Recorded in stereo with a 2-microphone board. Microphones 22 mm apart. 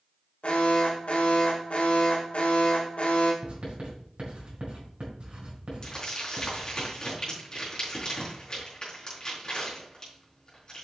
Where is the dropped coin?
I don't hear a dropped coin.